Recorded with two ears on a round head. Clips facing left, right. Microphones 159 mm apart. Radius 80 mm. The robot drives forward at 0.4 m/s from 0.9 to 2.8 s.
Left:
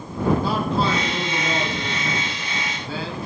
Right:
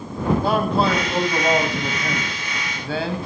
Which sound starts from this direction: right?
A man speaking, at 0.4 s.